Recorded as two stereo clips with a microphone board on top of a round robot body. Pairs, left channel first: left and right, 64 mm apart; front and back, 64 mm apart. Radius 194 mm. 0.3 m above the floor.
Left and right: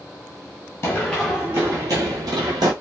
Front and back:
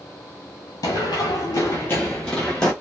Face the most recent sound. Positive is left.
turn(degrees=-85)